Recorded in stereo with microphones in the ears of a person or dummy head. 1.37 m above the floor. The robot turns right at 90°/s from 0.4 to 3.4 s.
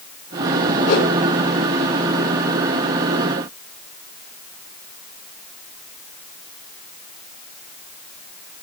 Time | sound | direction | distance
0.9 | a whoosh | 45° left (ahead or behind) | 6 m